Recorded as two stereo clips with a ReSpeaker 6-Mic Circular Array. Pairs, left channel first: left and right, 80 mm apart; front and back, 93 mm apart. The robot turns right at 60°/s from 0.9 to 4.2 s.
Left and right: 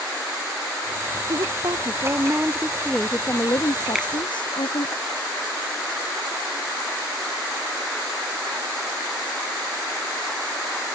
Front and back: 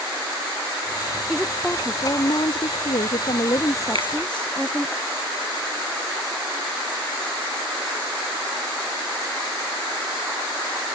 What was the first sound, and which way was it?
A woman speaking, 95° right.